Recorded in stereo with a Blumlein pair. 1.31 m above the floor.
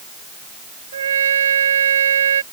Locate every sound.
0.9 s a trumpet: 65° right